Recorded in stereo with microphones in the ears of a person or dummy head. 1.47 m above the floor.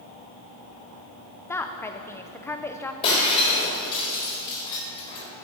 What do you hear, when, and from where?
1.5 s a woman speaking: 15° left (ahead or behind), 0.7 m
3.0 s breaking glass: 30° left (ahead or behind), 4 m